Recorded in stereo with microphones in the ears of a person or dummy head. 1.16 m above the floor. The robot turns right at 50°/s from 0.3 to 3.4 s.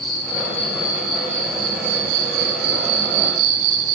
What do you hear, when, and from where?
0.0 s an insect: 155° left, 3 m; by 4.0 s 50° right, 3 m